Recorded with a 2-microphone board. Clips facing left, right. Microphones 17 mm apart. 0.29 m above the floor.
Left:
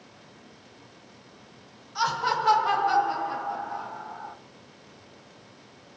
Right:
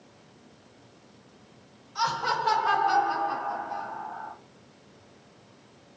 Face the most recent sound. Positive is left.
turn(degrees=-15)  # may be behind; listen again after turning